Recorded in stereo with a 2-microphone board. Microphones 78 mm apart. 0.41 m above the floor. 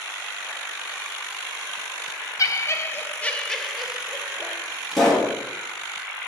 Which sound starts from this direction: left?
Laughter, at 2.4 s.